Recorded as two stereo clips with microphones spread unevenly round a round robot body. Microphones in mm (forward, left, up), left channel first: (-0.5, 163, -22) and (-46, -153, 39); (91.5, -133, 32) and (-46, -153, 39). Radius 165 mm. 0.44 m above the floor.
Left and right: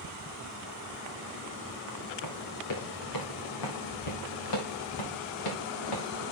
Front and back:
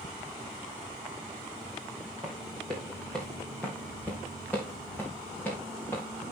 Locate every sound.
2.2 s running footsteps: 115° left, 4.5 m; by 6.0 s 90° left, 5.5 m